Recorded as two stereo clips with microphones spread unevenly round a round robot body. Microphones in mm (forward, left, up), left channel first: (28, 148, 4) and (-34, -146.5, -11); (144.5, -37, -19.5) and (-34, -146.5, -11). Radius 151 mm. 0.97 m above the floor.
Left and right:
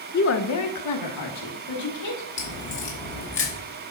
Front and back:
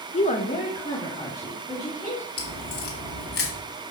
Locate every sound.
0.1 s a woman speaking: 45° left, 0.9 m; by 2.3 s 110° left, 3.5 m
2.4 s a crack: 25° left, 2.5 m